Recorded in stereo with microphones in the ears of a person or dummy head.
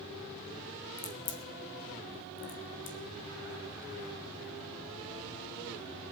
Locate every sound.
1.0 s a crack: 35° left (ahead or behind), 1.3 m